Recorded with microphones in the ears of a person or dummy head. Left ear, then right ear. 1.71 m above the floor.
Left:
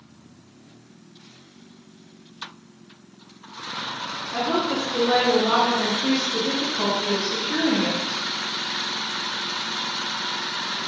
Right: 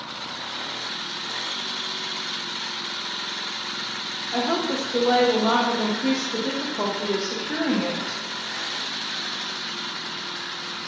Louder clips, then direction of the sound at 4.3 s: Left 1 dB; 80° right.